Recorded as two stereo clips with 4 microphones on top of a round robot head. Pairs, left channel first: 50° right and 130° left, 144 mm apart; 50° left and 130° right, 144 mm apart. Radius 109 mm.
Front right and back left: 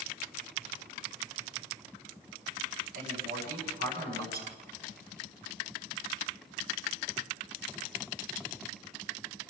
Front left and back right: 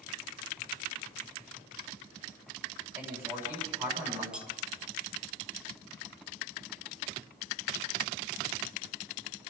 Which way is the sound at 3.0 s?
155° left.